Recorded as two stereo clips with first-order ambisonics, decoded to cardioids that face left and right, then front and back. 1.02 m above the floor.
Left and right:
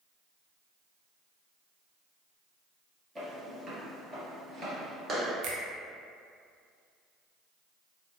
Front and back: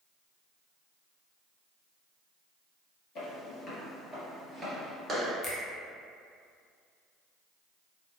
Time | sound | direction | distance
3.1 | footsteps | 20° right | 1.3 m
5.4 | a finger snap | 65° right | 0.6 m